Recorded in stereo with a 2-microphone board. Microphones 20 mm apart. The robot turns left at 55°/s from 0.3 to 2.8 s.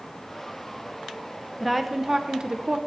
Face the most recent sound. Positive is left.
turn(degrees=-65)